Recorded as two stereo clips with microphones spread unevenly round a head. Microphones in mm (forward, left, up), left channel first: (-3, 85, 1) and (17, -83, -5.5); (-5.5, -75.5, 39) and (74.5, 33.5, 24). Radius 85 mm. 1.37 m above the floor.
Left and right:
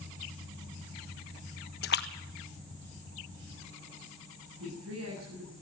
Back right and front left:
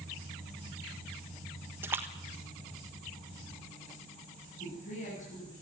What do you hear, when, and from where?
1.8 s a splash: 130° left, 1.3 m
4.6 s a woman speaking: 100° right, 10 m